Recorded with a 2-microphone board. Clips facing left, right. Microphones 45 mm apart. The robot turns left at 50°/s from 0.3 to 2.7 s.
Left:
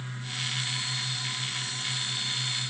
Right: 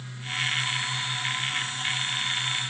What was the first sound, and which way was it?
Only background noise.